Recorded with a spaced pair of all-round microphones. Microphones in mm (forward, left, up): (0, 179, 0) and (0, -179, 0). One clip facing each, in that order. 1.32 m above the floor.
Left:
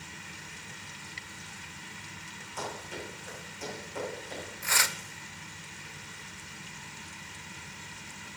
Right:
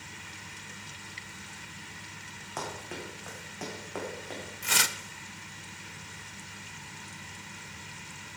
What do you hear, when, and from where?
2.6 s running footsteps: 80° right, 6 m; by 4.4 s 70° right (ahead or behind), 6.5 m
4.6 s tearing paper: 45° right (ahead or behind), 0.6 m